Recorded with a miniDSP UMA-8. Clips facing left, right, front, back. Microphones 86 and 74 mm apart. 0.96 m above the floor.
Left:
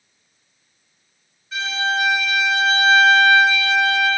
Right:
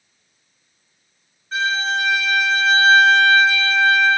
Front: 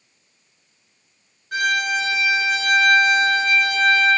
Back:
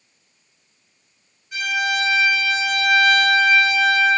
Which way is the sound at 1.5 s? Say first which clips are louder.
Right 1 dB, front 2 dB; 30° right.